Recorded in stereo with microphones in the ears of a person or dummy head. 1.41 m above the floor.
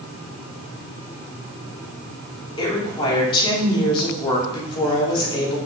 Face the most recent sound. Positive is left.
turn(degrees=25)  # may be behind; listen again after turning